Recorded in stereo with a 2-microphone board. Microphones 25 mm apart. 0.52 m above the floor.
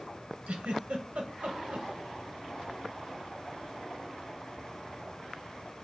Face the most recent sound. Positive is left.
turn(degrees=-75)  # may be behind; listen again after turning